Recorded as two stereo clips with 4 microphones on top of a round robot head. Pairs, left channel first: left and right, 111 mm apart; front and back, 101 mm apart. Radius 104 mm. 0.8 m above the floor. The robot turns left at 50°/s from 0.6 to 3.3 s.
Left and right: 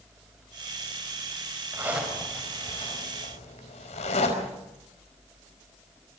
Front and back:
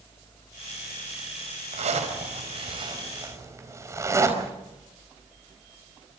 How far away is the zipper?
About 4.5 m.